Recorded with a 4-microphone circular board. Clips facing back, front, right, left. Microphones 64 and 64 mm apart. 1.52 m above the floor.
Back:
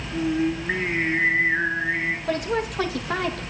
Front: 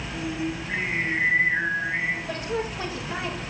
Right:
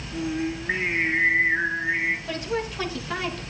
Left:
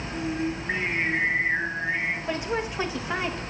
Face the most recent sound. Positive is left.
turn(degrees=160)